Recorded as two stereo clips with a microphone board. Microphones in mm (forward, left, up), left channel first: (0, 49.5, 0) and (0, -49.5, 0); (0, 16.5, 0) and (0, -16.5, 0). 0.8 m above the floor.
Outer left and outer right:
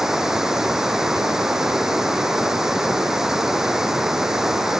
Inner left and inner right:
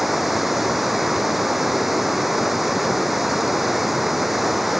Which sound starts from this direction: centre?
Running water, at 0.0 s.